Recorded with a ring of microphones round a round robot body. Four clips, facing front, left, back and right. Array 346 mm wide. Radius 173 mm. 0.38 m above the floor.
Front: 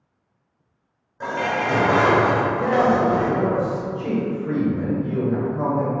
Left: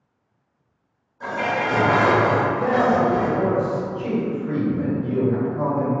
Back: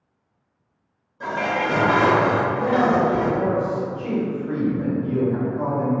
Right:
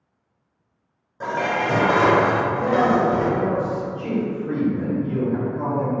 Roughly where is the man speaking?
Ahead left.